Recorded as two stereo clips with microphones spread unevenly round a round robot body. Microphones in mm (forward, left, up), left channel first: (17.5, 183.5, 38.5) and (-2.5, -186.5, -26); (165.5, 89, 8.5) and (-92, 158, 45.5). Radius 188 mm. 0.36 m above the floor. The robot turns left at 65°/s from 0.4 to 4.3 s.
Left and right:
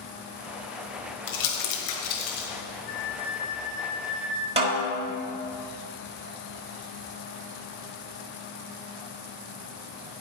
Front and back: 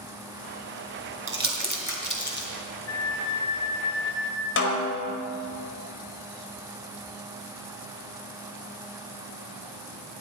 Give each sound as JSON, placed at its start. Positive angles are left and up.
{"t": 1.3, "sound": "crumpling", "azimuth_deg": 125, "distance_m": 2.5}
{"t": 2.9, "sound": "a flute", "azimuth_deg": 20, "distance_m": 2.5}
{"t": 4.6, "sound": "a snare drum", "azimuth_deg": -30, "distance_m": 1.4}